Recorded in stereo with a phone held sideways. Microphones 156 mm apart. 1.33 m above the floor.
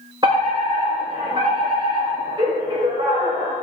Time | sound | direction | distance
0.2 | a fire alarm | 30° right (ahead or behind) | 7.5 m